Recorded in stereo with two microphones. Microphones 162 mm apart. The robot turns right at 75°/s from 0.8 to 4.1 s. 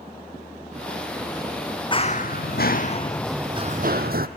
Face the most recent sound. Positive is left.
turn(degrees=-65)  # may be behind; listen again after turning